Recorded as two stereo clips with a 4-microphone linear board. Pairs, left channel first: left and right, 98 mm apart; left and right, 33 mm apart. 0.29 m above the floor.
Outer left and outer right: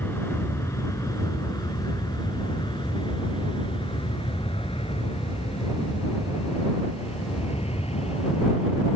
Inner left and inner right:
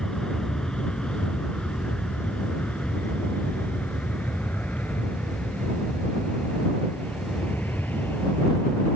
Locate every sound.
0.0 s an aircraft: 25° left (ahead or behind); by 9.0 s 80° left